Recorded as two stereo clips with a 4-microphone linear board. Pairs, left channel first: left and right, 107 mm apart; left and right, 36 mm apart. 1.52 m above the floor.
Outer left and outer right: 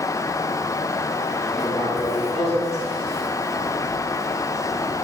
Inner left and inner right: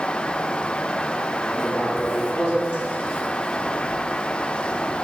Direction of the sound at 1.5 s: 75° left (ahead or behind).